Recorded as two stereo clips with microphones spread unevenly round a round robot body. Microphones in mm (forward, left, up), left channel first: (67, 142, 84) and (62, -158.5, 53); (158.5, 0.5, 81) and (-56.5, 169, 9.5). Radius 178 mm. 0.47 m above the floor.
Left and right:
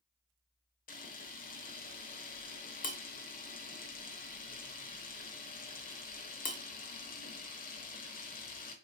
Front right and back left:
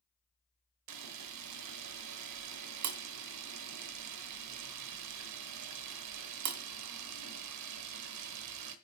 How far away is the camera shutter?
About 0.7 m.